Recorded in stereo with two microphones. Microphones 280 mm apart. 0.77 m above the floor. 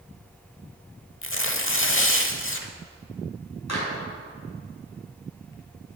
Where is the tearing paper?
50° left (ahead or behind), 0.9 m.